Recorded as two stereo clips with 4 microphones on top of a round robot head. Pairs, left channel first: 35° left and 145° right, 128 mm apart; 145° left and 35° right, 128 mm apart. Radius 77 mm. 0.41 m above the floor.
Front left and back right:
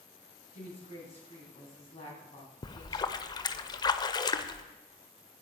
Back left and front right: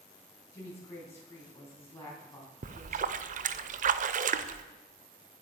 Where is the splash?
25° right, 0.6 m.